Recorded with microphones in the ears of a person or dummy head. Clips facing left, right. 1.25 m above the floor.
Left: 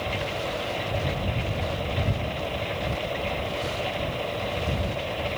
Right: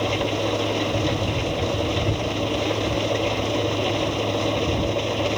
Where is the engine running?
55° right (ahead or behind).